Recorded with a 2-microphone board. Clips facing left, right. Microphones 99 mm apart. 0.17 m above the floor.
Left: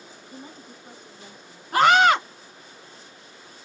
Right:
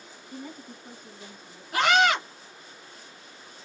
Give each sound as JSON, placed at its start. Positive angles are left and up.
{"t": 0.3, "sound": "a woman speaking", "side_deg": 30, "distance_m": 1.8}
{"t": 1.7, "sound": "a scream", "side_deg": 45, "distance_m": 1.9}